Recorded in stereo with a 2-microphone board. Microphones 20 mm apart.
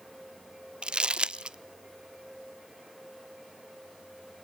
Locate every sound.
0.8 s crumpling: 55° right (ahead or behind), 0.7 m